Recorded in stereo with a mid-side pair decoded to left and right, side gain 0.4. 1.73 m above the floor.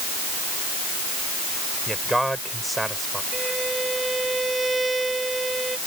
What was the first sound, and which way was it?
A man speaking, 10° right.